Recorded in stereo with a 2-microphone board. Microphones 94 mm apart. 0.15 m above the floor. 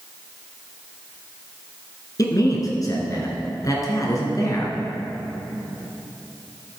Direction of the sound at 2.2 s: 40° left (ahead or behind).